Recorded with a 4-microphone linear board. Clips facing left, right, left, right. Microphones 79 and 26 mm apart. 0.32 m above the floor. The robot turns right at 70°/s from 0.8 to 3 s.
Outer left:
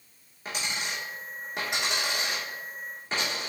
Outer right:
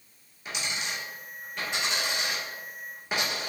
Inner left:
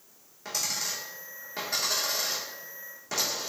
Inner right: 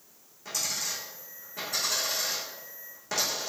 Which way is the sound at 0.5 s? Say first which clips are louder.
Outer left 1 dB, inner left 1 dB; 40° left (ahead or behind).